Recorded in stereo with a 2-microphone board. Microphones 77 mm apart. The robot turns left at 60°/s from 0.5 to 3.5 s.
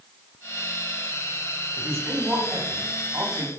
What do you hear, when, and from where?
1.8 s a man speaking: 25° right, 5.5 m; by 3.5 s 130° right, 5.5 m